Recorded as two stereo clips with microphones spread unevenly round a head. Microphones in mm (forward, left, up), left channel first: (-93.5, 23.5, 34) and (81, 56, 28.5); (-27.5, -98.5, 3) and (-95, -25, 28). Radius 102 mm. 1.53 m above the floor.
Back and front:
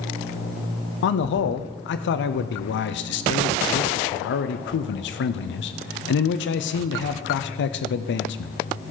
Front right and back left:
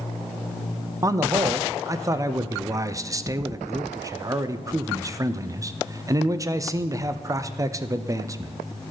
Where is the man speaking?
160° right, 0.6 m.